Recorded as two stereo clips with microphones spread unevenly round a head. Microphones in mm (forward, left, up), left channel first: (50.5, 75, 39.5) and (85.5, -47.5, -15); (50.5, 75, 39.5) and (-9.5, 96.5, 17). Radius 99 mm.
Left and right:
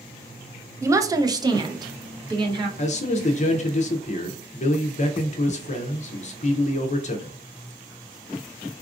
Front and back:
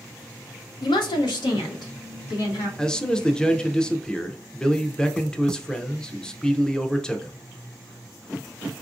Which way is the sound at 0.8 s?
20° right.